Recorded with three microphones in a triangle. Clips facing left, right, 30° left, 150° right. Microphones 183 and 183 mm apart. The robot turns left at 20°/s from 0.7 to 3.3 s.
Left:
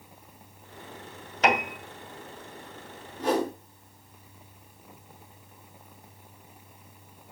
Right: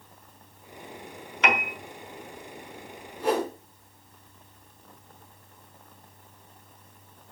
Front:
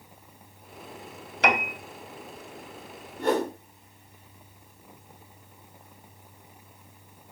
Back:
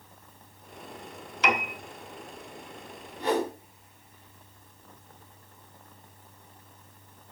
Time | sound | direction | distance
1.4 | a piano | 45° left | 1.7 m
3.2 | a whoosh | 5° right | 5.5 m